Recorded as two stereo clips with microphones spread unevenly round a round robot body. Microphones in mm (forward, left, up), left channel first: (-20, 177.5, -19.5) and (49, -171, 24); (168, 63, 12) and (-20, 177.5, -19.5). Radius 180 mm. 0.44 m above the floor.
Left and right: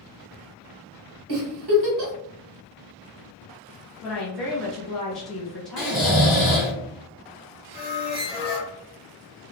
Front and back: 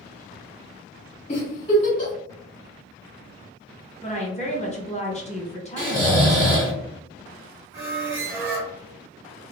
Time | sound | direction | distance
1.3 | a giggle | 100° right | 1.3 m
4.0 | a woman speaking | 20° left | 1.0 m
5.8 | snoring | 175° right | 1.7 m
7.7 | a squeak | 165° left | 1.0 m